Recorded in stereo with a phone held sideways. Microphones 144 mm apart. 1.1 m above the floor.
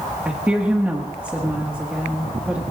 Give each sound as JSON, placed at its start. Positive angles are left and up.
{"t": 0.2, "sound": "a woman speaking", "side_deg": -10, "distance_m": 1.5}